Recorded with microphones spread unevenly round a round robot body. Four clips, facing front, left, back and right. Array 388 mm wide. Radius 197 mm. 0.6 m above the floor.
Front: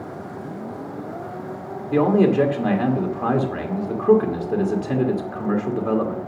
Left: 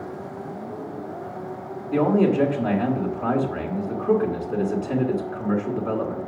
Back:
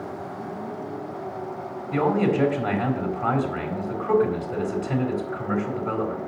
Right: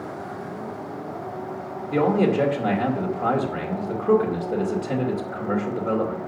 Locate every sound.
1.9 s a man speaking: 15° right, 2.5 m